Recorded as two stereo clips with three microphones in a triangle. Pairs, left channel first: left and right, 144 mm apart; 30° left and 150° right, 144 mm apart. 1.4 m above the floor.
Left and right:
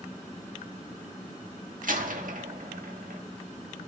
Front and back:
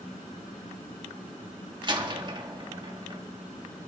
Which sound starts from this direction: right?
A door slam, at 1.8 s.